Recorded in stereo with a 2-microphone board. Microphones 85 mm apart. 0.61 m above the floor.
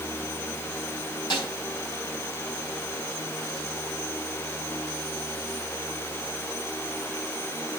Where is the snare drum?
60° left (ahead or behind), 5 m.